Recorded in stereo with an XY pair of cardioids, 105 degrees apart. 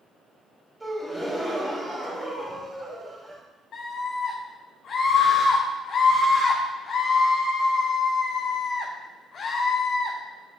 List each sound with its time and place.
0.8 s a gasp: 20° right, 3 m
3.7 s a scream: 60° left, 1.2 m